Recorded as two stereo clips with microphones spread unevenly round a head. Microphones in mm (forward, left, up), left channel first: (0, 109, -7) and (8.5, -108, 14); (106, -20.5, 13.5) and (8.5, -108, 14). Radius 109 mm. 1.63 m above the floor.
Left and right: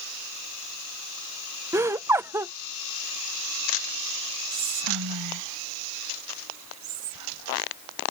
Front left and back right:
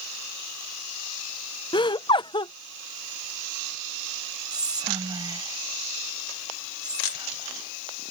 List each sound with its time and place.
1.7 s laughter: 10° right
4.5 s whispering: 80° right